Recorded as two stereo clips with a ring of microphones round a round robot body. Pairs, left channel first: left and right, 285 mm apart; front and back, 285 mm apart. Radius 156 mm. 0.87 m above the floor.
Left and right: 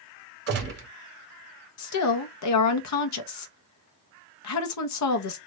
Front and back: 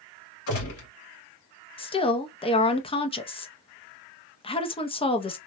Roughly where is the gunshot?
Ahead right.